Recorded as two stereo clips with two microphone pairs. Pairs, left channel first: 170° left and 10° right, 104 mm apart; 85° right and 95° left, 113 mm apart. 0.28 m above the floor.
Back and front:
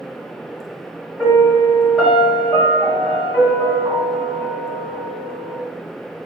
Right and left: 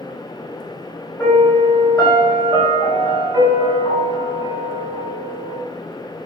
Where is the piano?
90° right, 1.3 m.